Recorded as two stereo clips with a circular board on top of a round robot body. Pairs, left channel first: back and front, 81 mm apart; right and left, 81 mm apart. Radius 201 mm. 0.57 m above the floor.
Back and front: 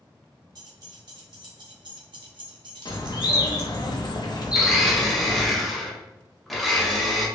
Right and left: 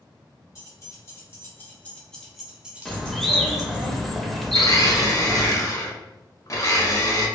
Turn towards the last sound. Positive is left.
turn(degrees=-90)